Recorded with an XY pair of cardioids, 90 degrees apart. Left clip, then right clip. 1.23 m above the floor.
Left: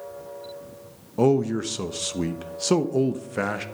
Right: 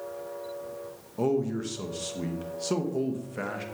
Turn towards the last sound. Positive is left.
turn(degrees=55)